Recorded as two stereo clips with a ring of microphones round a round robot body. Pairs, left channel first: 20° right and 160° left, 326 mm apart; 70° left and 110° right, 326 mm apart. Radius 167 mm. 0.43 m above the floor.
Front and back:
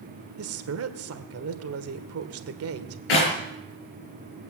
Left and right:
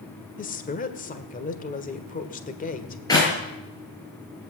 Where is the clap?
10° right, 7.5 m.